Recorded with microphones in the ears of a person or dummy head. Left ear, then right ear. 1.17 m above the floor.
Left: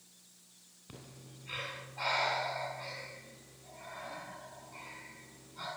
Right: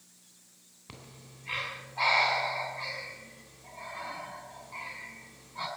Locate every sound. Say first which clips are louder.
0.9 s breathing: right 3 dB; 30° right (ahead or behind), 3.5 m